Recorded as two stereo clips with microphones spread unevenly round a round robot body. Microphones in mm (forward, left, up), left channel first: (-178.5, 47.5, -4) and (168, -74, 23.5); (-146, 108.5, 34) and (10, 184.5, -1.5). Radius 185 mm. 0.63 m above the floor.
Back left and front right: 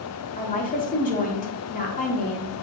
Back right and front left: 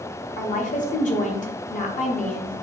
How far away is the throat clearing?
No throat clearing in this recording.